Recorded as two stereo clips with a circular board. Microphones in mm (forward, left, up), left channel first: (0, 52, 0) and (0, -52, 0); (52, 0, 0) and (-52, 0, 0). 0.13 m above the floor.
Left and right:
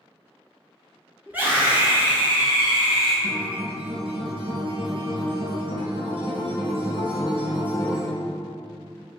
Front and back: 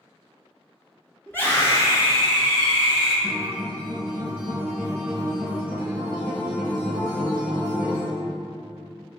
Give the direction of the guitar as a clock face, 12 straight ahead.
3 o'clock.